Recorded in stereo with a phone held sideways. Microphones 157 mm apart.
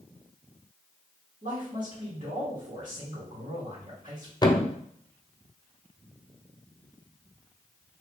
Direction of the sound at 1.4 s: 55° right (ahead or behind).